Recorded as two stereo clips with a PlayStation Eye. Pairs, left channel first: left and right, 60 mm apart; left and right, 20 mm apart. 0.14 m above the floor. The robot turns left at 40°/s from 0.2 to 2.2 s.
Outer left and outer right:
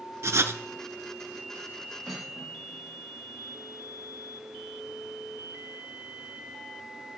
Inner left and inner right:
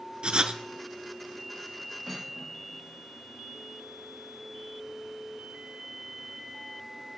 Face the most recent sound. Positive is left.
turn(degrees=0)  # may be behind; listen again after turning